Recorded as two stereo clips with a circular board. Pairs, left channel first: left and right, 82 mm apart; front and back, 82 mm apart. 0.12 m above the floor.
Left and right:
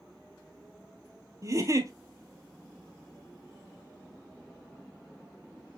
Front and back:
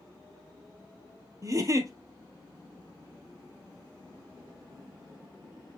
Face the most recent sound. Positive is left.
turn(degrees=-135)